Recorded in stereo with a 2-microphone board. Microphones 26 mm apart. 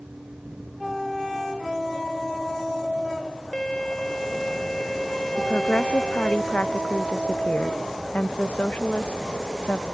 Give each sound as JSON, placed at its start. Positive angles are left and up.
{"t": 3.5, "sound": "a violin", "side_deg": 30}
{"t": 5.4, "sound": "a woman speaking", "side_deg": 80}